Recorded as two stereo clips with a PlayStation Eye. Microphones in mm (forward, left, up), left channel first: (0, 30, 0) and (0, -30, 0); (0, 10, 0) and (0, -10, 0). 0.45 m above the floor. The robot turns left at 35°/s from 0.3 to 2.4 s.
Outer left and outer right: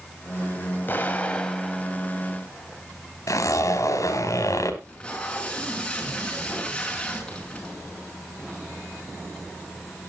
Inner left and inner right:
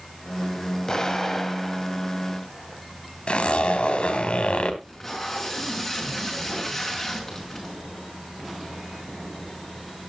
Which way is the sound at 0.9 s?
35° left.